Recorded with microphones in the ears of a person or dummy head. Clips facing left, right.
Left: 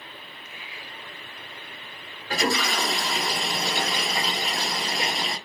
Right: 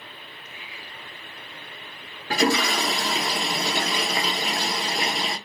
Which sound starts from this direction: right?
A toilet flushing, at 2.3 s.